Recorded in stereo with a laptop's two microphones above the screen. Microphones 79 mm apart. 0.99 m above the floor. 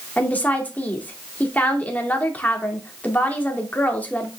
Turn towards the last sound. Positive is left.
turn(degrees=20)  # may be behind; listen again after turning